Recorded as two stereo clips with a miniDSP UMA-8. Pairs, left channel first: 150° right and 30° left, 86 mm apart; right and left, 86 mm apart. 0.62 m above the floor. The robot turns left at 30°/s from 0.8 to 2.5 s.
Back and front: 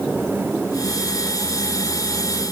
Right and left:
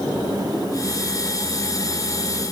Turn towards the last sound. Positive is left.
No sound to turn to.